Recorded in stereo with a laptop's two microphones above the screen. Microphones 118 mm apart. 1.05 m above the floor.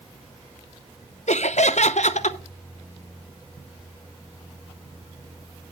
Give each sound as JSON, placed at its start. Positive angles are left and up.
{"t": 1.3, "sound": "laughter", "side_deg": 80, "distance_m": 0.8}